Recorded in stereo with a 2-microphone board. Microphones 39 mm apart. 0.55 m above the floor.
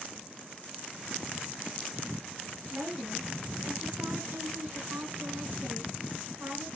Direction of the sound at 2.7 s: 65° right (ahead or behind).